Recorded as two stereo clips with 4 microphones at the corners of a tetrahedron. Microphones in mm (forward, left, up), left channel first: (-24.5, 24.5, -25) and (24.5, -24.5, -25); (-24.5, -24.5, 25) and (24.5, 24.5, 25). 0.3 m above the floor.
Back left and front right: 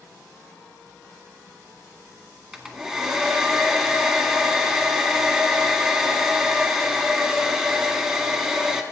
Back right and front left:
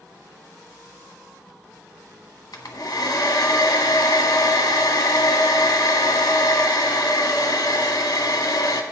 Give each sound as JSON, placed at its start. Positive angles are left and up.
{"t": 2.5, "sound": "a hair dryer", "azimuth_deg": -130, "distance_m": 1.6}